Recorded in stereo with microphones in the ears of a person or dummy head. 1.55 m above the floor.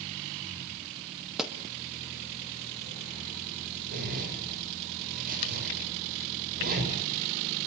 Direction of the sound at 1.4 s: Centre (ahead or behind).